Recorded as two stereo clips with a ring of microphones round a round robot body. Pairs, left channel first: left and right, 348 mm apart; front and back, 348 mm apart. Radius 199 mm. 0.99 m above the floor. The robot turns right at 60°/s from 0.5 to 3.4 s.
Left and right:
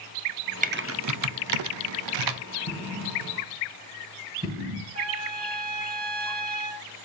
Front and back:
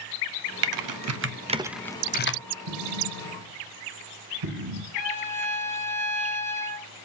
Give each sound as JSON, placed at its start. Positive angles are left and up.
{"t": 0.6, "sound": "typing on a keyboard", "azimuth_deg": -160, "distance_m": 0.8}
{"t": 2.7, "sound": "an explosion", "azimuth_deg": 155, "distance_m": 2.5}
{"t": 4.9, "sound": "a trumpet", "azimuth_deg": -15, "distance_m": 6.0}